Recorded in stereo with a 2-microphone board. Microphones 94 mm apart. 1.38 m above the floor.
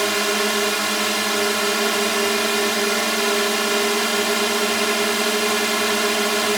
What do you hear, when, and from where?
0.0 s a drone: centre (ahead or behind)